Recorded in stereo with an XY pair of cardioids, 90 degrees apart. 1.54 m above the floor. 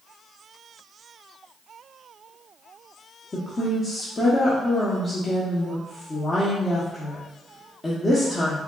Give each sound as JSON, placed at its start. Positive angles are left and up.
{"t": 3.3, "sound": "a woman speaking", "azimuth_deg": 35, "distance_m": 0.8}